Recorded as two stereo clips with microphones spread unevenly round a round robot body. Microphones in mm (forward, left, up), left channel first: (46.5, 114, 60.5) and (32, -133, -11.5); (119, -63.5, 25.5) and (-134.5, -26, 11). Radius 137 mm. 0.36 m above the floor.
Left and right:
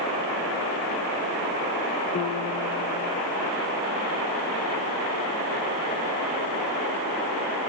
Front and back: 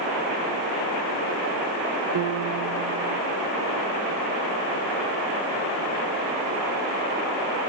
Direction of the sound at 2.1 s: 160° left.